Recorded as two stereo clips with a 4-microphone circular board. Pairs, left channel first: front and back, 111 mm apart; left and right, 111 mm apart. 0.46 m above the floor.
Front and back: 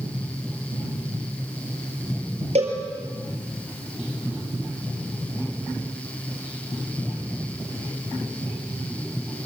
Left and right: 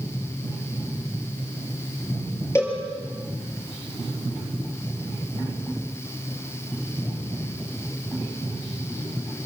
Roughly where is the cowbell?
Behind left.